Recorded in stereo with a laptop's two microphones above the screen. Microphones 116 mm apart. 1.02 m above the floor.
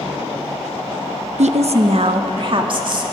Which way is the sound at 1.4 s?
75° right (ahead or behind).